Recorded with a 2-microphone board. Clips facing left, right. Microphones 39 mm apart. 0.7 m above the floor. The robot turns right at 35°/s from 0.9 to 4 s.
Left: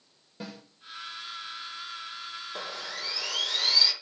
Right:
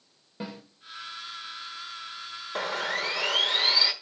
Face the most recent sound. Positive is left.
turn(degrees=-20)